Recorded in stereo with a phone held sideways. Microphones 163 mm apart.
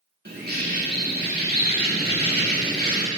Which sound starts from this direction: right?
A bird, at 0.2 s.